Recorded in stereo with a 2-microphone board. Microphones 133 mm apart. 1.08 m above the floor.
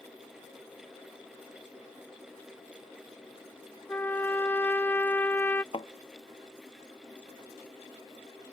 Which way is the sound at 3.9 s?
15° left (ahead or behind).